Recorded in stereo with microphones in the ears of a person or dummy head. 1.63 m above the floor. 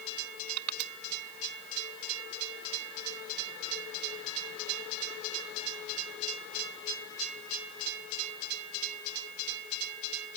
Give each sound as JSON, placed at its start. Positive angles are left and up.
{"t": 0.6, "sound": "crushing", "side_deg": -60}